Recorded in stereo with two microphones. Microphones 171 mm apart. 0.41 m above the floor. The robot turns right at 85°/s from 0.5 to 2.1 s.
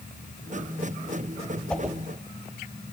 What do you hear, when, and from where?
1.7 s a whoosh: 10° left (ahead or behind), 1.7 m; by 2.0 s 15° right (ahead or behind), 1.7 m